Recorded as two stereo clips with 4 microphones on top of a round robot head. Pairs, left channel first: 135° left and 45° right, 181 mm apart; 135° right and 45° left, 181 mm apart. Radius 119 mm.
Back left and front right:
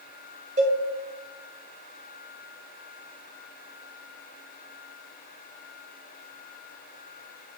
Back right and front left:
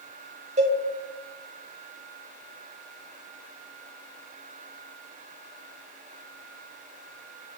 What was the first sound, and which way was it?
A cowbell, straight ahead.